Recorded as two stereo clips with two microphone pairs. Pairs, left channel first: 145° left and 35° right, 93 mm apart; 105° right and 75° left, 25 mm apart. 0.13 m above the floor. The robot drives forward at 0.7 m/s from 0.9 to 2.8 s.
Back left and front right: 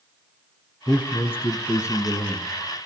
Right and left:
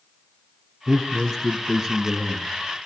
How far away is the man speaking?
About 1.4 m.